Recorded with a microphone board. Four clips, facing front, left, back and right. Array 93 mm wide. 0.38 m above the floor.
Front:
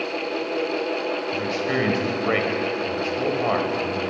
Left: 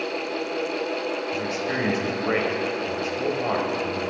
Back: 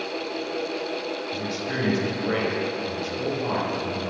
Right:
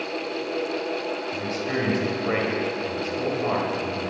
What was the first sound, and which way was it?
A man speaking, 15° left.